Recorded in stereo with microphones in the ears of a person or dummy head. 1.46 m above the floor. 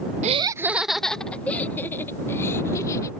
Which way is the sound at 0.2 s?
40° right (ahead or behind).